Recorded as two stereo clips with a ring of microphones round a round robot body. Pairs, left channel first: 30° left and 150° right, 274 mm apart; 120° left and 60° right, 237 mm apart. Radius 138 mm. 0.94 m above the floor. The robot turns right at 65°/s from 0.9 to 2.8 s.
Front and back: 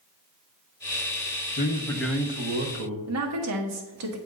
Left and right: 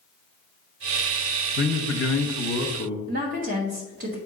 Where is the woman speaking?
120° right, 1.3 m.